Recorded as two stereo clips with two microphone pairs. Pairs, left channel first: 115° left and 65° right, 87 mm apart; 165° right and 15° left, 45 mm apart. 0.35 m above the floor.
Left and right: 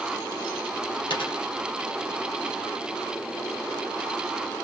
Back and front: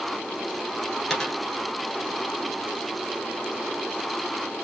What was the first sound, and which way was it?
A dropped coin, 110° left.